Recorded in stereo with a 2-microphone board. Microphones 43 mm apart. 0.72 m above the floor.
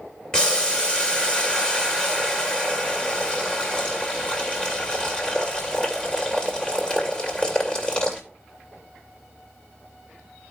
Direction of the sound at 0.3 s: 20° left (ahead or behind).